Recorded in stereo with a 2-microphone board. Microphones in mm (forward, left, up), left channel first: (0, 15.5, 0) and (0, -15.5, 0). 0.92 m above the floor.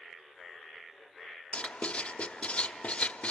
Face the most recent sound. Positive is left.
turn(degrees=45)  # may be behind; listen again after turning